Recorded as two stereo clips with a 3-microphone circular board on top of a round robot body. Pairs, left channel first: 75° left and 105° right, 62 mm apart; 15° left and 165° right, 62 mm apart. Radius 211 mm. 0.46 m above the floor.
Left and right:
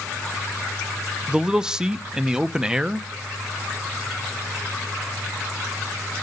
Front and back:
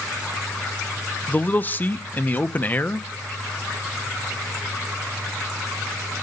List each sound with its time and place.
1.3 s a man speaking: 30° right, 0.8 m